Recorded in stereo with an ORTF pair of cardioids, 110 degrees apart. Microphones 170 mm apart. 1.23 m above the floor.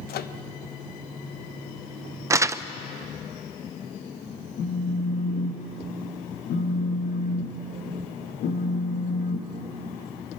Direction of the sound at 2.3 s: 20° right.